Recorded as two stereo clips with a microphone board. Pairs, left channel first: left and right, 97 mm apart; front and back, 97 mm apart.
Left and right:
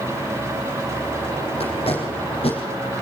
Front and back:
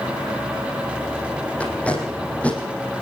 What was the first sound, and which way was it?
Tape being pulled, 75° left.